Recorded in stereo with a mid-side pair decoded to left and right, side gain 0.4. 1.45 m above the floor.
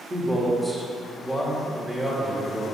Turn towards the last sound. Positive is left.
turn(degrees=-20)